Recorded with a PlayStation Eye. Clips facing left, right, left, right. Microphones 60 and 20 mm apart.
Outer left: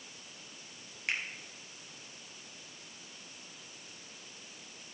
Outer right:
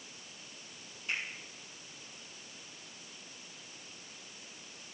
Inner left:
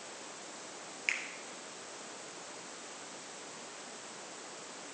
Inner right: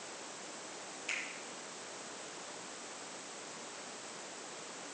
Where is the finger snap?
70° left (ahead or behind), 2.5 m.